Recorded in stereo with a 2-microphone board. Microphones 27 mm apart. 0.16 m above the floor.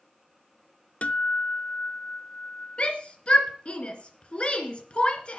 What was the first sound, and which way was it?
A guitar, 60° left (ahead or behind).